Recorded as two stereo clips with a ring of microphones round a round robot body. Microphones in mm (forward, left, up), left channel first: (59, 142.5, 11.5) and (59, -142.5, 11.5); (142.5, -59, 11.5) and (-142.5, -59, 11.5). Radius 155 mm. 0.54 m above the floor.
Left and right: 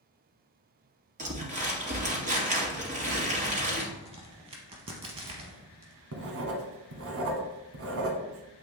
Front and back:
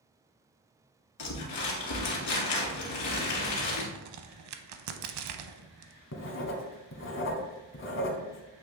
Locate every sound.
1.2 s crumpling: 25° right, 2 m
4.0 s a crack: 160° right, 0.6 m
6.1 s writing: 50° right, 1.1 m